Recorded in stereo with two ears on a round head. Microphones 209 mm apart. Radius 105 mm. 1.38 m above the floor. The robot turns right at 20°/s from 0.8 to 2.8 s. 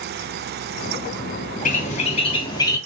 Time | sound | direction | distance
1.6 | a bird | 35° left (ahead or behind) | 0.7 m